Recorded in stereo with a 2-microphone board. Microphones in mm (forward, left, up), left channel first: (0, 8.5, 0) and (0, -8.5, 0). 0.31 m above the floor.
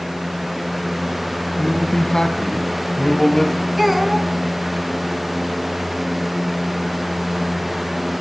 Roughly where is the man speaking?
Left.